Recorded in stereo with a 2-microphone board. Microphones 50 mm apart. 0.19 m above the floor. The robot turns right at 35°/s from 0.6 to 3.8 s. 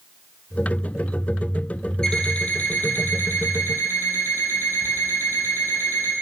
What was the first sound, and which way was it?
An alarm clock, 15° left.